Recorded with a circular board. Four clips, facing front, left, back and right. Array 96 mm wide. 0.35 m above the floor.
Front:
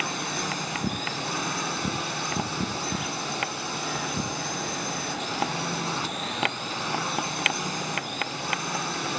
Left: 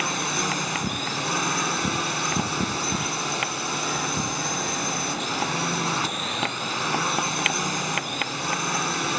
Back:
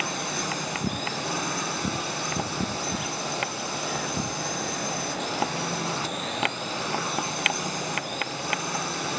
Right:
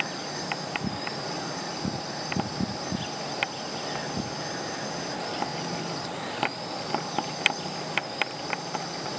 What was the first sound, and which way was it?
A drone, 85° left.